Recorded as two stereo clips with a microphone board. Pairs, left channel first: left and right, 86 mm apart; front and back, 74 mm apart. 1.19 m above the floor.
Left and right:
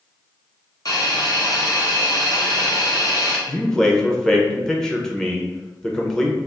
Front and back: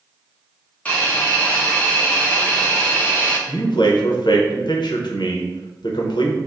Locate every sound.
0.8 s a hiss: 65° left, 0.8 m
3.5 s a man speaking: 5° left, 0.6 m